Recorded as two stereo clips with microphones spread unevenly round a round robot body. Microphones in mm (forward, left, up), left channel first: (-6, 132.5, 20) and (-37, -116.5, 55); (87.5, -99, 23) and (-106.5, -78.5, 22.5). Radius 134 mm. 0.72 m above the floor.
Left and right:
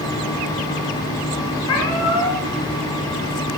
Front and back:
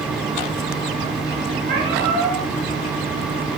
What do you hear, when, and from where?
1.6 s a cat meowing: 110° left, 5 m